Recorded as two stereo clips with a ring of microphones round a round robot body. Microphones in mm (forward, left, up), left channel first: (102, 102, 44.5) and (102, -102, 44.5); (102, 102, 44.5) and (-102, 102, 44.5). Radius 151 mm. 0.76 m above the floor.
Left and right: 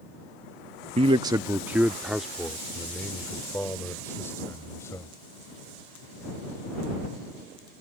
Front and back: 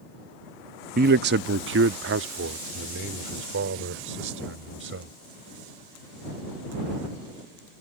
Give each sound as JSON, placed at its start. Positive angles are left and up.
{"t": 1.0, "sound": "a man speaking", "azimuth_deg": -145}